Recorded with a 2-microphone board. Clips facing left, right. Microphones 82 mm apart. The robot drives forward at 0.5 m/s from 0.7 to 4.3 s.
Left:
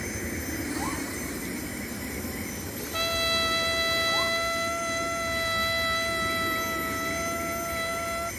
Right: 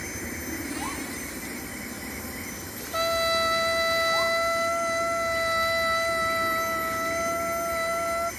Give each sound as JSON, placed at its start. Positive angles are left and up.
{"t": 0.0, "sound": "an aircraft", "side_deg": 10}
{"t": 2.9, "sound": "a trumpet", "side_deg": -25}